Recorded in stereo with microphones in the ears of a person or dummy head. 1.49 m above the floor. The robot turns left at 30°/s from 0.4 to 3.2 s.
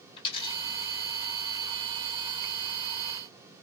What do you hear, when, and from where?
0.2 s a dropped coin: 25° left (ahead or behind), 1.9 m; by 0.6 s 20° left (ahead or behind), 1.9 m